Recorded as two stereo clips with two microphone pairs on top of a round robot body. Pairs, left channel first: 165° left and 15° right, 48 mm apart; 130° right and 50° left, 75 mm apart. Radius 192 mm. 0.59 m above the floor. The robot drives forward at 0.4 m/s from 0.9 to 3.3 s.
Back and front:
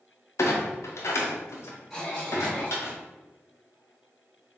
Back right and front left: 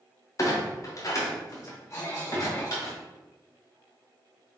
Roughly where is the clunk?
Behind.